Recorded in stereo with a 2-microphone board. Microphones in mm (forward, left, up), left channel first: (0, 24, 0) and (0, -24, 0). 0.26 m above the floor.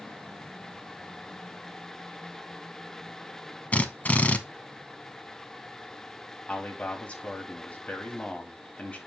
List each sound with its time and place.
3.7 s a drill: 30° left (ahead or behind), 0.8 m
6.5 s a man speaking: 25° left (ahead or behind), 1.7 m